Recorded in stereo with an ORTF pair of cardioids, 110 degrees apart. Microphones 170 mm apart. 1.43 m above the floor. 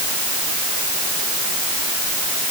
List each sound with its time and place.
Only background noise.